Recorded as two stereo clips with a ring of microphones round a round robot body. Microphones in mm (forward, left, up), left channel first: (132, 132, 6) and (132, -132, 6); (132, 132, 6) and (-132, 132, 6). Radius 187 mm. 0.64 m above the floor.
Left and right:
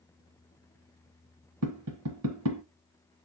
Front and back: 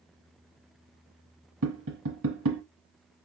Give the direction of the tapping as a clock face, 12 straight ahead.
4 o'clock.